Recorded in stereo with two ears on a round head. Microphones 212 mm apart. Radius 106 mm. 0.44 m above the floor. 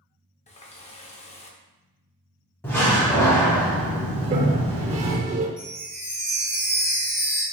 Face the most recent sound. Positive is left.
turn(degrees=10)  # may be behind; listen again after turning